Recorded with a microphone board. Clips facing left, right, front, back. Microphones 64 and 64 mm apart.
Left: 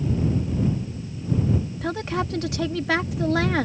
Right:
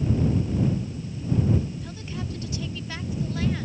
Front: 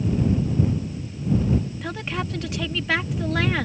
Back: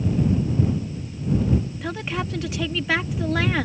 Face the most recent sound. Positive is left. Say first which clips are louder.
# left 9 dB, back 1 dB
turn(degrees=90)